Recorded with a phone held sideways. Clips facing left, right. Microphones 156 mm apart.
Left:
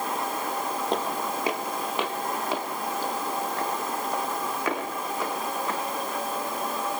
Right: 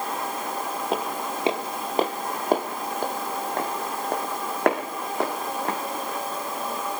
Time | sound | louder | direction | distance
0.9 | footsteps | right 1 dB | 5° right (ahead or behind) | 1.3 m